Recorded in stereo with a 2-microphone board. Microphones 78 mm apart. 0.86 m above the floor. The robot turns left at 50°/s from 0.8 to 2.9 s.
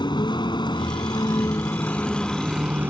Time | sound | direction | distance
0.0 | a vehicle | 80° left | ?